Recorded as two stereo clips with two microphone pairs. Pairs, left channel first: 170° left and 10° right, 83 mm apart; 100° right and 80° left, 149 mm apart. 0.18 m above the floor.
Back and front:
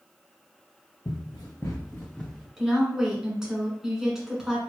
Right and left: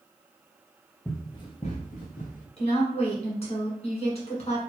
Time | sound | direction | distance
1.1 | running footsteps | straight behind | 0.9 m
2.6 | a woman speaking | 90° right | 1.6 m